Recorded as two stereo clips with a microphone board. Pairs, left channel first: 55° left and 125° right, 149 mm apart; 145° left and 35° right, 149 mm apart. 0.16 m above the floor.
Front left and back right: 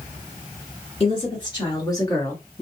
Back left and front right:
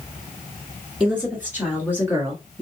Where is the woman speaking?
40° left, 1.9 m; by 2.6 s straight ahead, 1.5 m.